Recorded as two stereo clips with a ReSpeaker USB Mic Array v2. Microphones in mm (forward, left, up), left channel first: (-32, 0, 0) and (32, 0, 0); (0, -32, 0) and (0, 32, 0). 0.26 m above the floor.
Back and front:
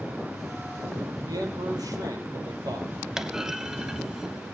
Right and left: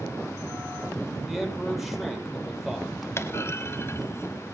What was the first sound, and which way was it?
A man speaking, 5° left.